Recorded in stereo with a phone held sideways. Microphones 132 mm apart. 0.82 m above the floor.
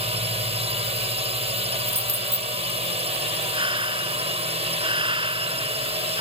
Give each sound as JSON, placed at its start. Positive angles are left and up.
{"t": 0.0, "sound": "a drone", "side_deg": -50}
{"t": 1.9, "sound": "keys jangling", "side_deg": -60}
{"t": 3.5, "sound": "breathing", "side_deg": -40}